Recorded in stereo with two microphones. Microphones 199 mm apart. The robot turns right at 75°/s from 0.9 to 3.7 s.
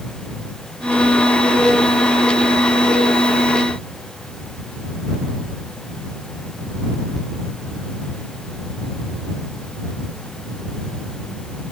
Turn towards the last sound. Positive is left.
No sound to turn to.